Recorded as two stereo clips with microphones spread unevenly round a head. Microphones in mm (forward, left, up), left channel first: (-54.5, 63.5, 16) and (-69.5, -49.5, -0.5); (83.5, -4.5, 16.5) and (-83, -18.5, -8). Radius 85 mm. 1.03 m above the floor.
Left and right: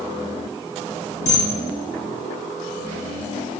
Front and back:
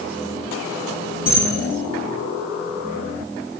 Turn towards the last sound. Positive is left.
turn(degrees=100)